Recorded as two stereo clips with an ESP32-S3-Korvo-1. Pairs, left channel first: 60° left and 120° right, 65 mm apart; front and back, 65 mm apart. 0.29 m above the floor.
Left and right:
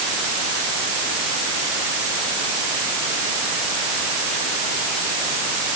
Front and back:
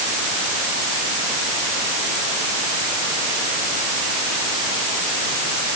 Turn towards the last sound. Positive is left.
No sound to turn to.